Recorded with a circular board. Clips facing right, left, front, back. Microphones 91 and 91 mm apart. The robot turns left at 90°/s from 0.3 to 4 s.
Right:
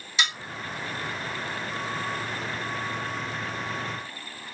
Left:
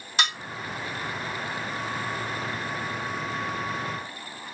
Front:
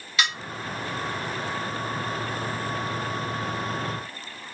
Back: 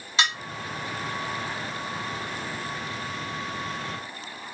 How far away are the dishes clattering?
About 1.0 m.